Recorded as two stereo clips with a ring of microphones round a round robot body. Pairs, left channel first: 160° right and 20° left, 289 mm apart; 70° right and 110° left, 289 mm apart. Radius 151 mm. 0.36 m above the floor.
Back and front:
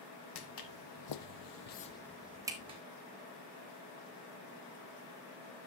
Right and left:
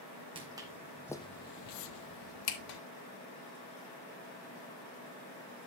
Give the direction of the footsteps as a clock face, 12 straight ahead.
6 o'clock.